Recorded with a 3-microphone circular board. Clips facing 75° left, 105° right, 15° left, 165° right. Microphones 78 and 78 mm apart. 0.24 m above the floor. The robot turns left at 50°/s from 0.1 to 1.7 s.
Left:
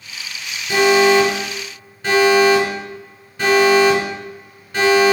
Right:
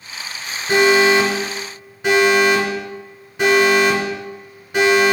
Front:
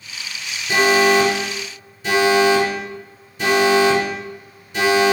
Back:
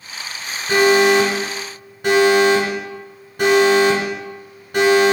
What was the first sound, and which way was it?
An alarm, 125° right.